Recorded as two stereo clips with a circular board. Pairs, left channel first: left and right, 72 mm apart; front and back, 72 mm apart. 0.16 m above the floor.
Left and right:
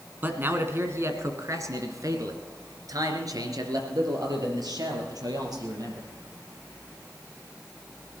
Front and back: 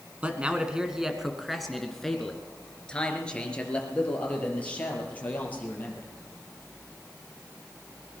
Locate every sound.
0.2 s a man speaking: 125° right, 1.6 m; by 6.1 s 65° right, 4.5 m